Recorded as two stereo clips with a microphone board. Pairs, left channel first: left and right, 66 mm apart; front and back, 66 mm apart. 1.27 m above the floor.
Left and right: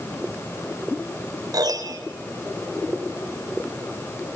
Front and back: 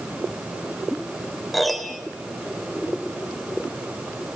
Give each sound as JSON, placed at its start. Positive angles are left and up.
{"t": 1.5, "sound": "a piano", "azimuth_deg": -90, "distance_m": 3.0}